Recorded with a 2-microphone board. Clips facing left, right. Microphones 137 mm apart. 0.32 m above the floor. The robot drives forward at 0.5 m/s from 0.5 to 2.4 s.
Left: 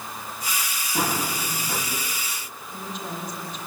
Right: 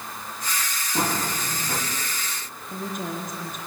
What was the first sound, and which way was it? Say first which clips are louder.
Running footsteps: even; 5° right (ahead or behind).